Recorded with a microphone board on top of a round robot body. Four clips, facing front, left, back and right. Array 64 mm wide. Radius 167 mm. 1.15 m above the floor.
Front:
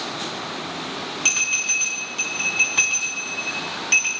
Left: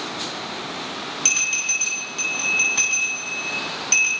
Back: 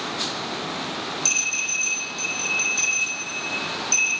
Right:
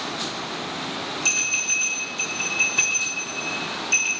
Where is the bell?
20° left, 9 m.